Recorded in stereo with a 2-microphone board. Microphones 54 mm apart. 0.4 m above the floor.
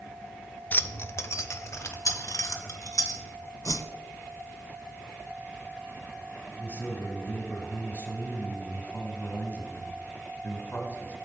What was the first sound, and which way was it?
Keys jangling, 35° left (ahead or behind).